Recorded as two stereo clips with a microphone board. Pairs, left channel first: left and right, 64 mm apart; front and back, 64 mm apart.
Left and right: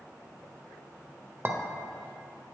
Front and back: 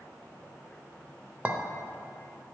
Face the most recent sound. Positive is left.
turn(degrees=-120)